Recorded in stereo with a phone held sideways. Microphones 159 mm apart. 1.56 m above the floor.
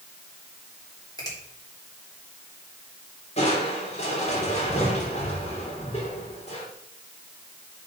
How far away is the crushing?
About 3.5 m.